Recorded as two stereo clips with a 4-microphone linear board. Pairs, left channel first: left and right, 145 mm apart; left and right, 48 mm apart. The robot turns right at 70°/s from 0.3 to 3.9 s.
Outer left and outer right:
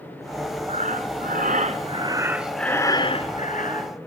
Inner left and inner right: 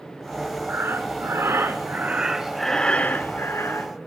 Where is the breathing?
130° right, 0.8 m; by 3.9 s 95° left, 0.8 m.